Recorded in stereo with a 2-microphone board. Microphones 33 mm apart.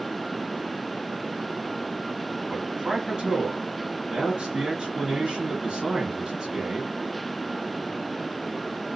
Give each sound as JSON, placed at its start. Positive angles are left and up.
{"t": 2.5, "sound": "a man speaking", "side_deg": -25, "distance_m": 1.3}